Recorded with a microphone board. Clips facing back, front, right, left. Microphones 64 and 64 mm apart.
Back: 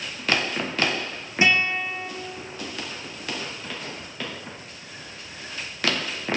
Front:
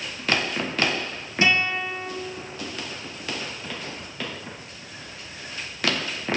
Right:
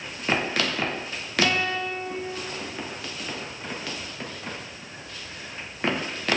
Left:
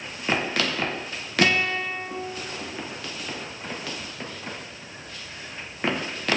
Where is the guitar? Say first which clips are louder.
Back 1 dB, left 2 dB; 110° left, 2.5 m.